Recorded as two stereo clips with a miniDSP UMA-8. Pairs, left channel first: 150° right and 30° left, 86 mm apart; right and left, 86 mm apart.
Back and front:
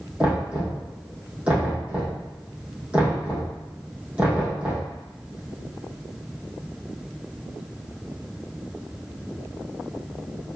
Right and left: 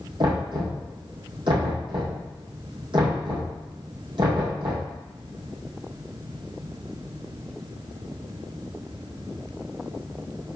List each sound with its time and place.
0.2 s knocking: 105° left, 4 m